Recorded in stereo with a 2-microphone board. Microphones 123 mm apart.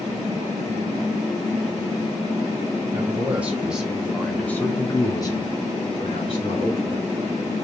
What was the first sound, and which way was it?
A man speaking, 15° right (ahead or behind).